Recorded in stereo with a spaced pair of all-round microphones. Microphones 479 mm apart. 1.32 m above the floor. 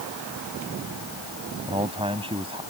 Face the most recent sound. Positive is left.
turn(degrees=-10)  # may be behind; listen again after turning